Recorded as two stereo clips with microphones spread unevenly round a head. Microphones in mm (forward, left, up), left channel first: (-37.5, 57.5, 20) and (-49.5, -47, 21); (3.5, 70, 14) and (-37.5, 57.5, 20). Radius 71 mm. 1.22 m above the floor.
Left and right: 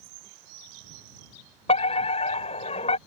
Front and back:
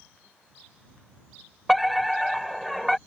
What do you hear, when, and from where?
1.7 s a fire alarm: 105° left